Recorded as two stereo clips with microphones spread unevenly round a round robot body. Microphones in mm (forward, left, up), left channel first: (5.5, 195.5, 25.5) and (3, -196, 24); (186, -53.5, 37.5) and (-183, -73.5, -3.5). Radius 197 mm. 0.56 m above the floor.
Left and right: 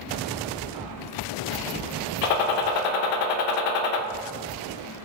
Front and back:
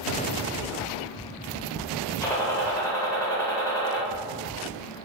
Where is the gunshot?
85° left, 0.6 m.